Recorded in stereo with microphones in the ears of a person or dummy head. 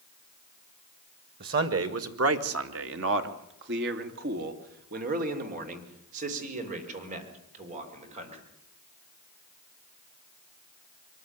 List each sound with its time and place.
1.4 s a man speaking: 60° right (ahead or behind), 1.7 m; by 8.4 s 40° right (ahead or behind), 5.5 m